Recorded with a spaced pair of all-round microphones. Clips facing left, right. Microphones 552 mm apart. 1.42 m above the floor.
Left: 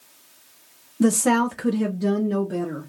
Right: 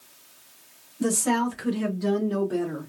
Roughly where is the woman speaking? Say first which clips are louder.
Left 5 dB; left.